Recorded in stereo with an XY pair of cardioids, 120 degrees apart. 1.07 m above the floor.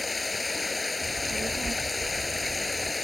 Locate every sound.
0.0 s running water: 20° left
1.0 s a child speaking: 25° right